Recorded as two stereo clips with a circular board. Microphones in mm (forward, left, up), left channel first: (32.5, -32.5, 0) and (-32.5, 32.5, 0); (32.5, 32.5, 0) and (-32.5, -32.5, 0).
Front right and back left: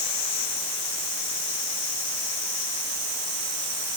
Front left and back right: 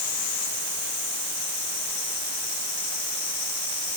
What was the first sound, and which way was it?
Only background noise.